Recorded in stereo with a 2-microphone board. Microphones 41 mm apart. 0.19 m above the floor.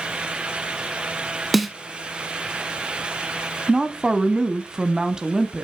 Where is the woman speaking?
15° right (ahead or behind), 1.0 m.